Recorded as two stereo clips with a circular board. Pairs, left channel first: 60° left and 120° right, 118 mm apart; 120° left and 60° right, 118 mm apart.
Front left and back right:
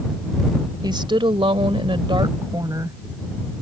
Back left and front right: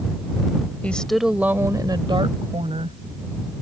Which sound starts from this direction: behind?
A woman speaking, at 0.8 s.